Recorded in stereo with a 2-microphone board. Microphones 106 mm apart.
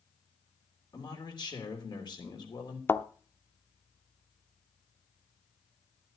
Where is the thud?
20° left (ahead or behind), 0.6 m.